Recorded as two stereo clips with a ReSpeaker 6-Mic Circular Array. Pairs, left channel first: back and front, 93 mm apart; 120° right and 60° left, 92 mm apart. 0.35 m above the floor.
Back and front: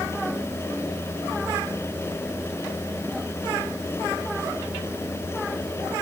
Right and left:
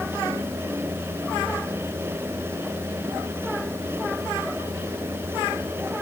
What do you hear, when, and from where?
Only background noise.